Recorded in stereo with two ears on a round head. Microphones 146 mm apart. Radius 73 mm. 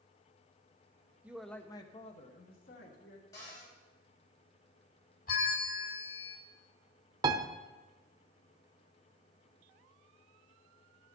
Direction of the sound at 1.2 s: 10° right (ahead or behind).